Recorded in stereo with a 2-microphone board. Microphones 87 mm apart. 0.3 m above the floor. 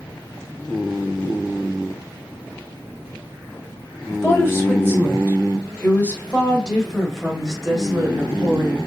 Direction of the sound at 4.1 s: 30° left (ahead or behind).